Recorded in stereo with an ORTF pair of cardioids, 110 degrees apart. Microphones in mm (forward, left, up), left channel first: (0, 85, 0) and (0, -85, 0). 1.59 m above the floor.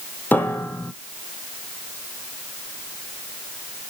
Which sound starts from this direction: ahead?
A piano, at 0.3 s.